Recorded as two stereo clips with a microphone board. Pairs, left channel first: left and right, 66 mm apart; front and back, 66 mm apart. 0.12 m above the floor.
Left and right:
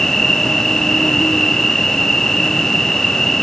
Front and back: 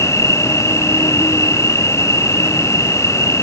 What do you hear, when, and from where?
0.0 s an insect: 5° left